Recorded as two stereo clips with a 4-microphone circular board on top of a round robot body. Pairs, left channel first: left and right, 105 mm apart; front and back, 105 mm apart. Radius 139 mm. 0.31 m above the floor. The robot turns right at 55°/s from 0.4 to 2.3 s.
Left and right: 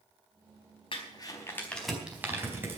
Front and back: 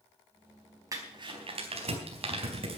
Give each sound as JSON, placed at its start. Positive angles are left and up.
{"t": 0.9, "sound": "crumpling", "azimuth_deg": 125, "distance_m": 4.5}